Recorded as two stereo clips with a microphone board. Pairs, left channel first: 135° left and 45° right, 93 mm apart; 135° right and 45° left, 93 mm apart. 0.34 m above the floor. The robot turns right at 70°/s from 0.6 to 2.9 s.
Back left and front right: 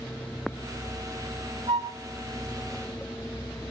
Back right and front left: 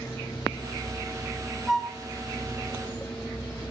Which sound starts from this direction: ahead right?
A flute, at 1.7 s.